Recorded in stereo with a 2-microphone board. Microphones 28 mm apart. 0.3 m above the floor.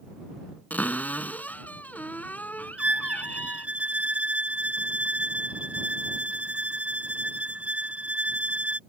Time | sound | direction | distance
0.7 | a cupboard door | 70° left (ahead or behind) | ?
2.8 | a violin | 45° right (ahead or behind) | ?